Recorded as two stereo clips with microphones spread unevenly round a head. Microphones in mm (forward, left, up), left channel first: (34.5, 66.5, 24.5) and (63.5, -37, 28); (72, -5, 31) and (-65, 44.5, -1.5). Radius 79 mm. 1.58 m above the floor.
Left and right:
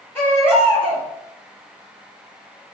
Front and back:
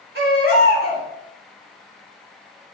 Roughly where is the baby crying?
Behind.